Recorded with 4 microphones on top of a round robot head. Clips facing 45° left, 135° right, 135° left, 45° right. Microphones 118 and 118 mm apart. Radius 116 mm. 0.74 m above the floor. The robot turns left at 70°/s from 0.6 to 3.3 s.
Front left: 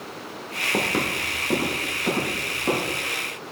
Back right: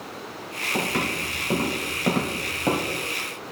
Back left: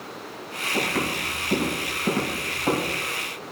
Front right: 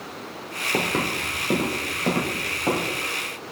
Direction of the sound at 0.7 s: 5° left.